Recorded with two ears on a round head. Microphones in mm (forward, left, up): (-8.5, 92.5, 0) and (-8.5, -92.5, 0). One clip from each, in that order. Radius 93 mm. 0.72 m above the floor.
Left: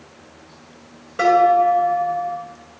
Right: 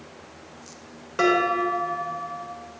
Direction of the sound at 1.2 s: 45° right (ahead or behind).